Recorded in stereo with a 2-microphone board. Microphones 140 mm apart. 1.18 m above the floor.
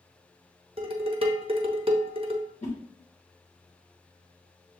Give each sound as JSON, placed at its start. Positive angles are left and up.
{"t": 0.8, "sound": "dishes clattering", "side_deg": -40, "distance_m": 0.7}
{"t": 2.6, "sound": "a whoosh", "side_deg": 50, "distance_m": 1.4}